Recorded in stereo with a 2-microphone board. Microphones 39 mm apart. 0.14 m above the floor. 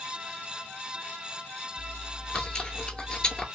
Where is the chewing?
20° left (ahead or behind), 0.5 m.